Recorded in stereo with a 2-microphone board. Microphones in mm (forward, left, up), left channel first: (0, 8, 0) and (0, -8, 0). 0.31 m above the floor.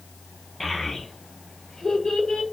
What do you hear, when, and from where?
0.6 s a child speaking: 5° left (ahead or behind), 1.0 m; by 2.4 s 60° left (ahead or behind), 0.9 m